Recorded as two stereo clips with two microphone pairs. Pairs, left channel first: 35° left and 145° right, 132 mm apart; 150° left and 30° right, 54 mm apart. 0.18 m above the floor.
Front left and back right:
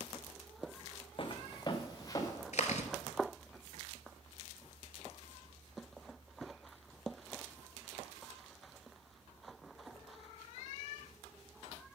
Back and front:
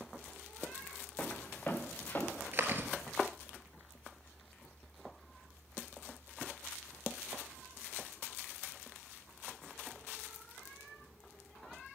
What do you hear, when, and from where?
1.2 s footsteps: 85° left, 1.0 m; by 2.4 s 100° left, 1.7 m
2.5 s chewing: 20° left, 1.0 m